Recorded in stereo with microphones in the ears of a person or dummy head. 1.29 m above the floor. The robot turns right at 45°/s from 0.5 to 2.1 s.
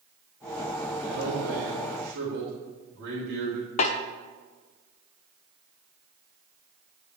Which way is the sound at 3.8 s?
40° left (ahead or behind).